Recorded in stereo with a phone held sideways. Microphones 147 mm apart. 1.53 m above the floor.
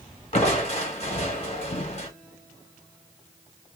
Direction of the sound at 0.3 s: 45° left (ahead or behind).